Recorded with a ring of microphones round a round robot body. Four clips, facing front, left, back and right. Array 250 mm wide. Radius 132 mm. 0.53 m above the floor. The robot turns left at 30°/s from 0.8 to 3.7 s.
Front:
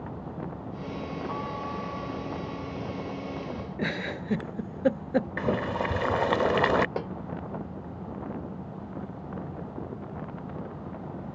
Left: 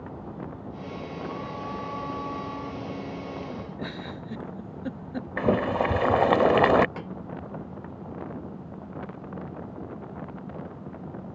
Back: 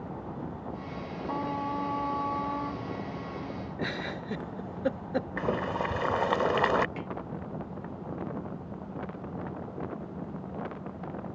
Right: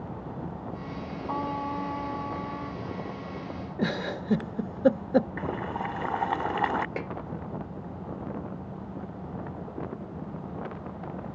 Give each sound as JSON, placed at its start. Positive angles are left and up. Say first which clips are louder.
{"t": 1.3, "sound": "a trumpet", "louder": "right 8 dB, back 6 dB", "azimuth_deg": -125}
{"t": 3.8, "sound": "a giggle", "louder": "right 6 dB, front 3 dB", "azimuth_deg": -65}
{"t": 5.4, "sound": "boiling", "louder": "left 8 dB, front 2 dB", "azimuth_deg": 80}
{"t": 7.0, "sound": "a snare drum", "louder": "right 3 dB, front 6 dB", "azimuth_deg": -25}